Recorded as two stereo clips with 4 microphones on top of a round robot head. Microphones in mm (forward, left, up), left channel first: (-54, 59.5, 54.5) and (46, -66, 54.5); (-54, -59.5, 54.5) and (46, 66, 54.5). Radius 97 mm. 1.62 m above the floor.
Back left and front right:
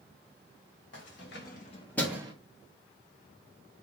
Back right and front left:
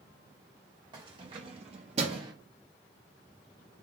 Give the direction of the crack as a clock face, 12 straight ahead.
No crack in this recording.